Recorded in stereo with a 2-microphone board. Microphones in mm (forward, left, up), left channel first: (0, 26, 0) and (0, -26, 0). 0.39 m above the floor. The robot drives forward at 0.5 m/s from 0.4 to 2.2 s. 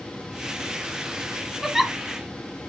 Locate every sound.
1.6 s a giggle: 5° right (ahead or behind), 1.1 m